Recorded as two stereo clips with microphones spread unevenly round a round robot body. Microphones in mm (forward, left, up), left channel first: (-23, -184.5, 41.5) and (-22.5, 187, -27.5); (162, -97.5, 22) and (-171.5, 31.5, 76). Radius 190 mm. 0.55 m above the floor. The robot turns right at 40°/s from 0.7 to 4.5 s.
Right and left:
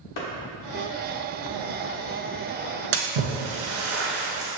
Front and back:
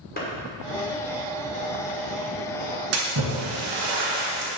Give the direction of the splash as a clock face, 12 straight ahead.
8 o'clock.